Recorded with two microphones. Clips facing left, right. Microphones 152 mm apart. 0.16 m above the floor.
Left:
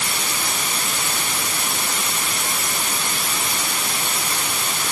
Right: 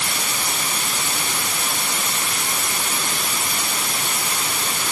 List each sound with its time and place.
Only background noise.